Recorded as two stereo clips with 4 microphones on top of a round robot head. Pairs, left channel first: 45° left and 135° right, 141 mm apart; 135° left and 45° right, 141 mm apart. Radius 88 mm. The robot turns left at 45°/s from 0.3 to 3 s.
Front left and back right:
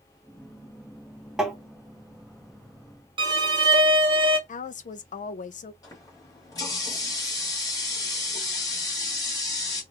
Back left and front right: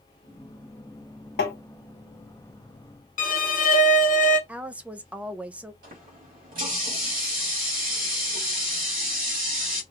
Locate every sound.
1.4 s tapping: 140° left, 1.2 m; by 1.6 s 130° left, 1.2 m
3.2 s a violin: 170° left, 0.9 m
4.5 s a woman speaking: 35° left, 0.6 m
5.8 s a running tap: 20° right, 2.5 m